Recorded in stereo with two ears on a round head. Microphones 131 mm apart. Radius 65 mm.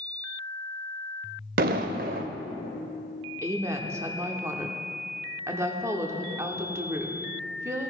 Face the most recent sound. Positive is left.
turn(degrees=-20)  # may be behind; listen again after turning